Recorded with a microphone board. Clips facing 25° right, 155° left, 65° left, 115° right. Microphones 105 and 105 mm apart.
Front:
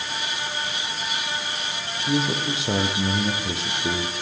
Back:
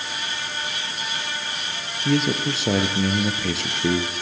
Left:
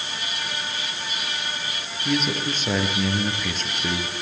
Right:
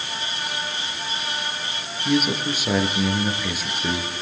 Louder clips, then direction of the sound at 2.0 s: Back 3 dB, right 3 dB; 165° left.